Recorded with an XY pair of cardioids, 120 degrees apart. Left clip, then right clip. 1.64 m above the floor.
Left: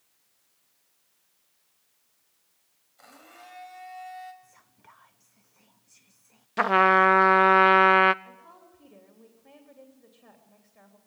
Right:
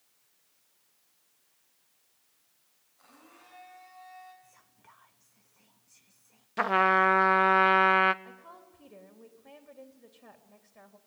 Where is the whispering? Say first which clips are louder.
Left 3 dB; 20° left, 0.6 m.